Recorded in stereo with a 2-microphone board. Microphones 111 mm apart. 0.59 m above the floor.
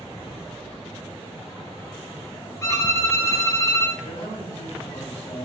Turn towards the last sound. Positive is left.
turn(degrees=65)  # may be behind; listen again after turning